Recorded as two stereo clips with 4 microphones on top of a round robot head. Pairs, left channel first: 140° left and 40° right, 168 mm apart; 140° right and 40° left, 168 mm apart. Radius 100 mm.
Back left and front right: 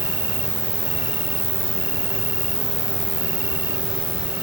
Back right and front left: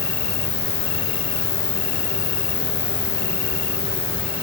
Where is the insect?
115° right.